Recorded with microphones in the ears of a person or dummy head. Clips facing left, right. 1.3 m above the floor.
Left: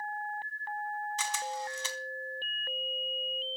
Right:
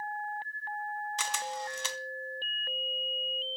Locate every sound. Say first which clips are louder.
1.2 s a camera shutter: even; 55° right (ahead or behind), 0.7 m